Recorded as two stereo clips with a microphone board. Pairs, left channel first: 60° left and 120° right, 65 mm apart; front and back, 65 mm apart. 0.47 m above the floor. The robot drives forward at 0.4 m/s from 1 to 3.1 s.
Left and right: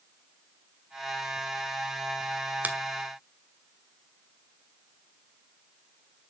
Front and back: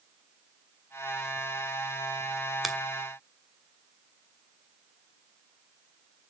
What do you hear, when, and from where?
2.6 s a finger snap: 95° right, 1.1 m; by 2.8 s 100° right, 1.1 m